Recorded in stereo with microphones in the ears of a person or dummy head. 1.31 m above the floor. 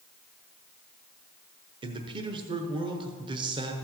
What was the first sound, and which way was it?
A man speaking, 25° right (ahead or behind).